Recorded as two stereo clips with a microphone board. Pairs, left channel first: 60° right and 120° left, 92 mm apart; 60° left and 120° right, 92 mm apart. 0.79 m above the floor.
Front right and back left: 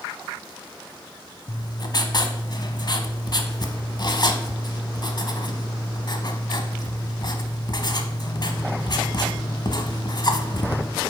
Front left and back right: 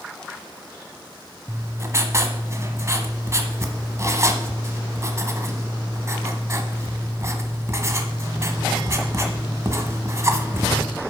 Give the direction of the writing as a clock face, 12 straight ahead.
2 o'clock.